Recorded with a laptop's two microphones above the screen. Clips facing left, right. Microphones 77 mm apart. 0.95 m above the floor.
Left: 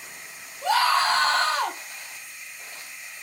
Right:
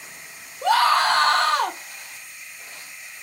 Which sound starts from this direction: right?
A scream, at 0.6 s.